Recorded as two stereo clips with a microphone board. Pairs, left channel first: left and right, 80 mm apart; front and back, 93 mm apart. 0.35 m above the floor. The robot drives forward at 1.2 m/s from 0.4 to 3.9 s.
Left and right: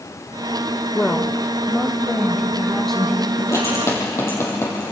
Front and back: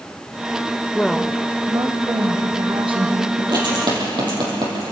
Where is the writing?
140° left, 5.5 m; by 4.9 s 145° left, 6 m.